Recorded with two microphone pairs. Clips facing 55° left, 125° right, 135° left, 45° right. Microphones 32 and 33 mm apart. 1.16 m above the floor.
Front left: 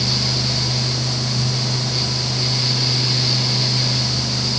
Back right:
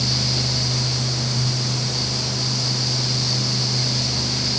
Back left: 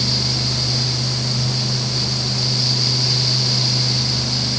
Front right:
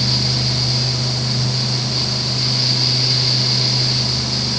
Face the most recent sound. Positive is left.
No sound to turn to.